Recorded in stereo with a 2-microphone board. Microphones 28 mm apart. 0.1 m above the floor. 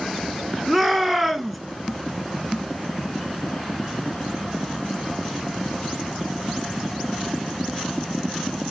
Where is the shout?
Centre (ahead or behind), 1.1 m.